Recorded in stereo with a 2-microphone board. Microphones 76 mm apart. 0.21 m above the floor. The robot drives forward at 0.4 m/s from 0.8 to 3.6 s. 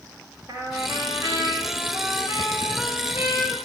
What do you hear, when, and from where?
0.5 s a trumpet: 55° right (ahead or behind), 2.5 m; by 3.6 s 40° right (ahead or behind), 3 m